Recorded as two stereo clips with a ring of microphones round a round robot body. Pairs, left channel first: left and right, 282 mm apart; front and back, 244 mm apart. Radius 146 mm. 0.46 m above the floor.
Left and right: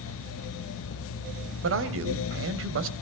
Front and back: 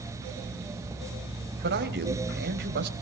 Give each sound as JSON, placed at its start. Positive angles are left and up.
{"t": 1.6, "sound": "a man speaking", "azimuth_deg": -130, "distance_m": 2.5}